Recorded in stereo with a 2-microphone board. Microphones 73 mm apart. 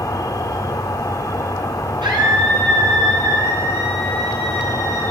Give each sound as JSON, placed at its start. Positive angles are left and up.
{"t": 0.0, "sound": "an insect", "side_deg": 50, "distance_m": 1.1}
{"t": 2.0, "sound": "a scream", "side_deg": -80, "distance_m": 9.0}